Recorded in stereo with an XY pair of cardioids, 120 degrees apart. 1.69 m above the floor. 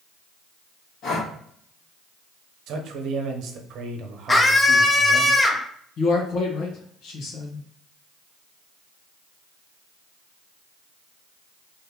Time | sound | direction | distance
1.0 | breathing | 65° left | 2 m
2.7 | a man speaking | 70° right | 1.0 m
4.3 | a scream | 20° left | 0.9 m
6.0 | a man speaking | 65° left | 1.2 m